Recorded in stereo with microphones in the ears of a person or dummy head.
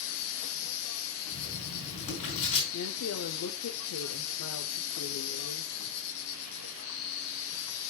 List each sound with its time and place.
0.0 s an insect: 65° left (ahead or behind), 1.1 m
1.3 s writing: 35° left (ahead or behind), 4 m
2.7 s a woman speaking: 80° left, 0.8 m